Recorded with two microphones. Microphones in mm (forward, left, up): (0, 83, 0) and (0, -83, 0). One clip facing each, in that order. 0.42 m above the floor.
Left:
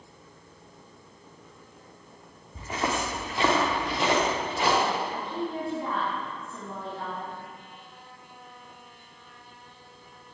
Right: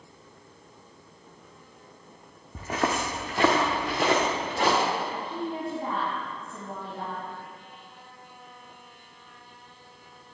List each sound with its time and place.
2.5 s footsteps: 60° right (ahead or behind), 1.5 m
5.1 s a woman speaking: 50° right (ahead or behind), 3 m